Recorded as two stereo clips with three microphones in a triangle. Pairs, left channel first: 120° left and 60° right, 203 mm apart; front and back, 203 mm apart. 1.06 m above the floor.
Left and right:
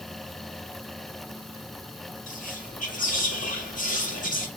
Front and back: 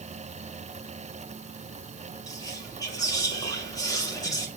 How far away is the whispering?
About 2 m.